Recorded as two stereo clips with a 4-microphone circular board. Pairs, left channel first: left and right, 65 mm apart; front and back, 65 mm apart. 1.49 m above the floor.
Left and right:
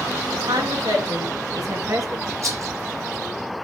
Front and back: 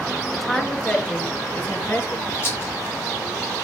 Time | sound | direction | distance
0.3 | a woman speaking | 90° right | 2.5 m
2.4 | a rattle | 50° right | 5 m